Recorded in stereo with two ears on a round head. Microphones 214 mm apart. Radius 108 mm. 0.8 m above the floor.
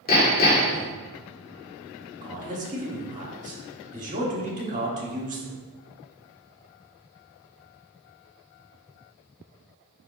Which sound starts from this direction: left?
Hammering, at 0.1 s.